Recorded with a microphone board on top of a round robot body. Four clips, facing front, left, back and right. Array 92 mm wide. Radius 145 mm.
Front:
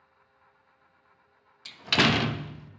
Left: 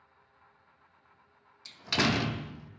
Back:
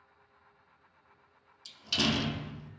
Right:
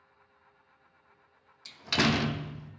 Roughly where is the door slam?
Ahead.